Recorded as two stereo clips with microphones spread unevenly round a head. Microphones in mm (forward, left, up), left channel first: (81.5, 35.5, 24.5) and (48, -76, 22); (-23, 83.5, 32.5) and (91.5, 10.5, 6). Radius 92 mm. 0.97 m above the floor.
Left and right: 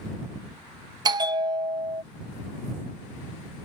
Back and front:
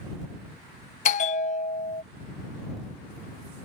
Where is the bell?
165° right.